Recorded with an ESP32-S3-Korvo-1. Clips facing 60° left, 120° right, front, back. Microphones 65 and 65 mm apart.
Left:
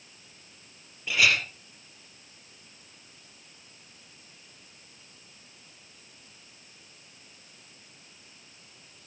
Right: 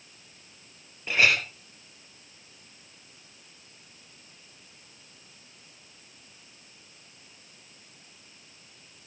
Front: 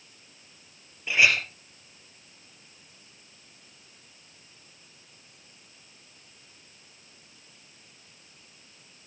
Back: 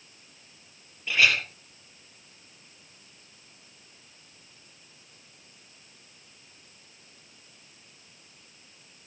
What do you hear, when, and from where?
1.1 s a clink: 70° right, 3 m